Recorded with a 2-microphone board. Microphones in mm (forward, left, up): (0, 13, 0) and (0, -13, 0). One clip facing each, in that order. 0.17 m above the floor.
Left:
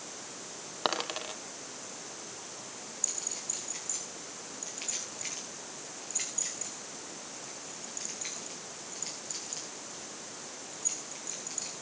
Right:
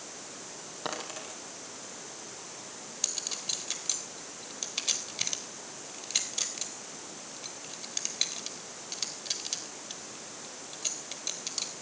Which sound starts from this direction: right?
A clink, at 3.0 s.